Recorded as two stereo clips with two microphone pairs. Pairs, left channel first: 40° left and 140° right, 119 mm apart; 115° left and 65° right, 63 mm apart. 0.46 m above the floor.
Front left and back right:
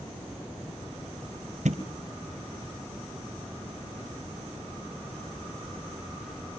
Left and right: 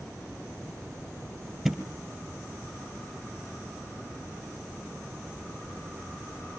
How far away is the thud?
About 2.5 m.